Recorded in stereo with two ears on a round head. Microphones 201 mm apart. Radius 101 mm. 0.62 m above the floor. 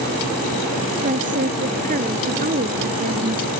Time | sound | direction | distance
1.0 | a woman speaking | 35° right (ahead or behind) | ?